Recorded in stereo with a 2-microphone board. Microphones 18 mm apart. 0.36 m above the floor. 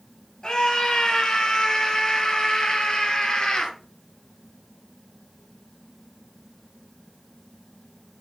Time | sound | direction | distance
0.4 | a scream | 50° left (ahead or behind) | 7.5 m